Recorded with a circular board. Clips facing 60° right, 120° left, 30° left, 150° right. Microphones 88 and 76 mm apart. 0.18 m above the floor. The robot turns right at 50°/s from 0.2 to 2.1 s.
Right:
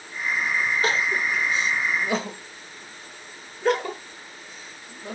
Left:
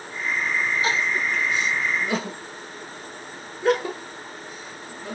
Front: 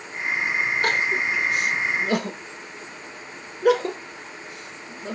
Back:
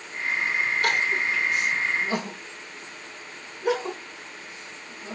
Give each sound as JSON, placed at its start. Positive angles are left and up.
{"t": 0.8, "sound": "crying", "azimuth_deg": -25, "distance_m": 0.9}